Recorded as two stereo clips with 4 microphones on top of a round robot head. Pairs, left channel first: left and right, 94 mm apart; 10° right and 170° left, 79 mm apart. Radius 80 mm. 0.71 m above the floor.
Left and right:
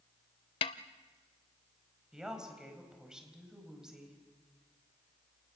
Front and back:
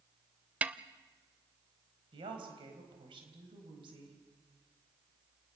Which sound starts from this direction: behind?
A woman speaking, at 2.1 s.